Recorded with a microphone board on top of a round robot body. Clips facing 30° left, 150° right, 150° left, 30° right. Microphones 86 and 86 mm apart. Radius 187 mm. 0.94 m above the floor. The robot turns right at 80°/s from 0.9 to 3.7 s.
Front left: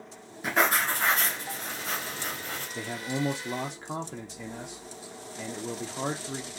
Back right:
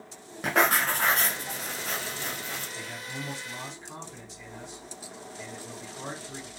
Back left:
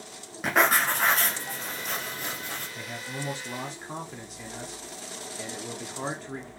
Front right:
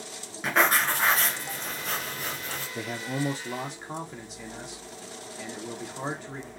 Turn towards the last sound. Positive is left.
turn(degrees=60)